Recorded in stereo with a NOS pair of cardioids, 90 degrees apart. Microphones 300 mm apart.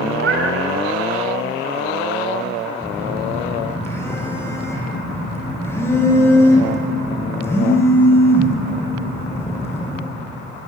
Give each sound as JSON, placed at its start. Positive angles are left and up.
{"t": 0.1, "sound": "a cat meowing", "azimuth_deg": -45, "distance_m": 4.5}
{"t": 2.8, "sound": "a phone buzzing", "azimuth_deg": 10, "distance_m": 5.0}